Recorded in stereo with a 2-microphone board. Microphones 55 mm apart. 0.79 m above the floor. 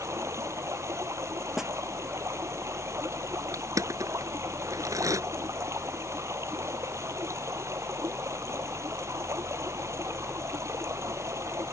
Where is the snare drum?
10° right (ahead or behind).